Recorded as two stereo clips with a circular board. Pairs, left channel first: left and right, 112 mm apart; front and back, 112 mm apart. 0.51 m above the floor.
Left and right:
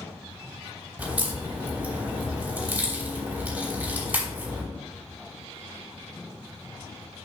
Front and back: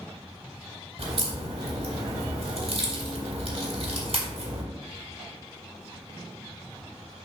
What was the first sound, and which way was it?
A crack, 165° right.